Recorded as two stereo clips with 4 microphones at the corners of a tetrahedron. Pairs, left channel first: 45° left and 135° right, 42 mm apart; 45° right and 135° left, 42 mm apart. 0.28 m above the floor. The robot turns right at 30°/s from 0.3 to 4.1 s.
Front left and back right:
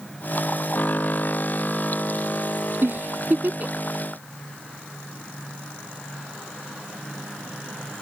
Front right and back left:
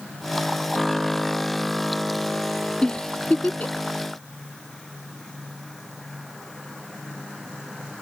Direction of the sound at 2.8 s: 115° right.